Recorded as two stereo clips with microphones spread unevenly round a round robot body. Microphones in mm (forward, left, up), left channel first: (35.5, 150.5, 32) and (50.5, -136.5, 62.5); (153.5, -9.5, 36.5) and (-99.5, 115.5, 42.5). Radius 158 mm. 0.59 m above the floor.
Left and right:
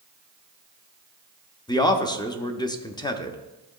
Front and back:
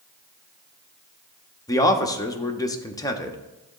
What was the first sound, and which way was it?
A man speaking, 40° left.